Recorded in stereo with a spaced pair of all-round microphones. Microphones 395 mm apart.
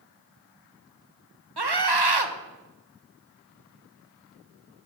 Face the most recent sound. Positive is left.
turn(degrees=-75)  # may be behind; listen again after turning